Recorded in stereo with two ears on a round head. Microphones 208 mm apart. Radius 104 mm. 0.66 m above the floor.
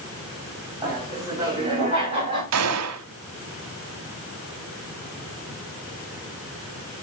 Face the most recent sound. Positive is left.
turn(degrees=-70)  # may be behind; listen again after turning